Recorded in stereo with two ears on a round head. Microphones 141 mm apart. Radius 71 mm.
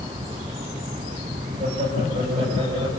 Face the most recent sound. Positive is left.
turn(degrees=-35)  # may be behind; listen again after turning